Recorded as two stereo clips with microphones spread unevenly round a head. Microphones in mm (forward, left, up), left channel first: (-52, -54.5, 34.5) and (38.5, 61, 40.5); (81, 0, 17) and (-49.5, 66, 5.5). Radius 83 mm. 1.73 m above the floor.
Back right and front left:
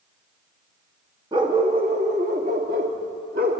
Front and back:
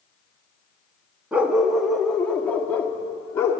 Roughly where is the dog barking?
Left.